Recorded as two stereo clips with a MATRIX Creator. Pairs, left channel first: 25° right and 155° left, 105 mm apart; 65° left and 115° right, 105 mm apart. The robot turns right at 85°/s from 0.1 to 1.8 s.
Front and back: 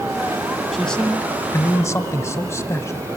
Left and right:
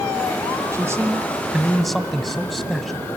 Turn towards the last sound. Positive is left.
turn(degrees=-20)